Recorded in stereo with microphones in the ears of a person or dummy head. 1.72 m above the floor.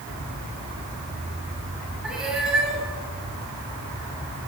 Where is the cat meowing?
5° right (ahead or behind), 7 m.